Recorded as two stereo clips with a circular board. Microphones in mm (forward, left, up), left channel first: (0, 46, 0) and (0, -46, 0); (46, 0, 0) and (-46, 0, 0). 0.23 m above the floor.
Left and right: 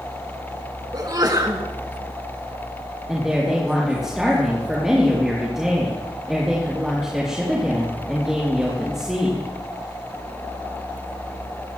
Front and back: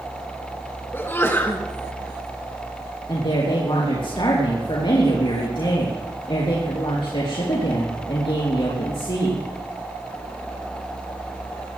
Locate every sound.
0.9 s a sneeze: 60° right, 3 m
3.1 s a woman speaking: 10° right, 4.5 m